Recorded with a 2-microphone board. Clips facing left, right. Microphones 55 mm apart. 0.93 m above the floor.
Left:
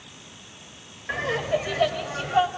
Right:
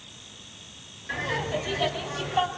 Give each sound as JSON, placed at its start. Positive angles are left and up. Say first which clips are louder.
{"t": 1.1, "sound": "laughter", "louder": "left 4 dB", "side_deg": 35, "distance_m": 3.5}